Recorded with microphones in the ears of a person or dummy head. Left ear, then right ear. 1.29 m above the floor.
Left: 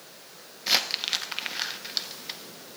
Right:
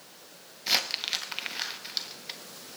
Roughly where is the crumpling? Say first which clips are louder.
Left 2 dB; centre.